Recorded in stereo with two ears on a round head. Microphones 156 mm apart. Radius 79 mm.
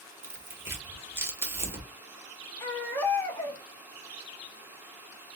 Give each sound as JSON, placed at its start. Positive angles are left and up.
{"t": 0.2, "sound": "tearing paper", "side_deg": -15, "distance_m": 1.2}
{"t": 2.6, "sound": "a baby crying", "side_deg": 10, "distance_m": 1.2}